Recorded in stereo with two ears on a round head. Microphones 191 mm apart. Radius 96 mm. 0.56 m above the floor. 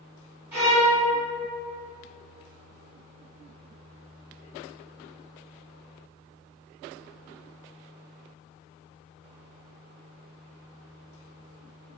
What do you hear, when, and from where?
0.5 s a violin: 10° right (ahead or behind), 1.5 m